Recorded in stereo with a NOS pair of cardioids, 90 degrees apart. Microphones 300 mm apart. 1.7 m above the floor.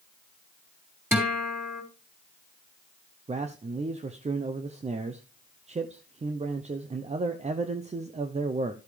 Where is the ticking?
No ticking in this recording.